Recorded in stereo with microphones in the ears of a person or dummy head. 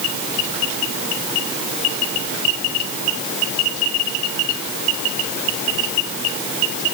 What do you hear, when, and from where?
Only background noise.